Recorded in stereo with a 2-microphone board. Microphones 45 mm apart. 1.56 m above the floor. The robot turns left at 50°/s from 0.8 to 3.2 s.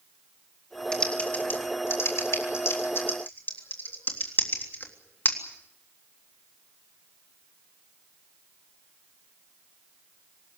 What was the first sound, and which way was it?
Typing on a keyboard, 20° left (ahead or behind).